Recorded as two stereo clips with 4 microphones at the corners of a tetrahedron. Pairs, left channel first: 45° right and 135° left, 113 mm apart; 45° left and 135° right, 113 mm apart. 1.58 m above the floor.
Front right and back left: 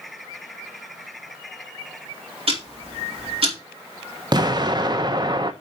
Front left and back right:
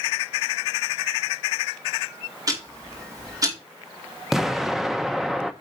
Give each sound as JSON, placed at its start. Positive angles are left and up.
{"t": 2.5, "sound": "ticking", "azimuth_deg": 165, "distance_m": 2.5}
{"t": 4.3, "sound": "an explosion", "azimuth_deg": 140, "distance_m": 0.7}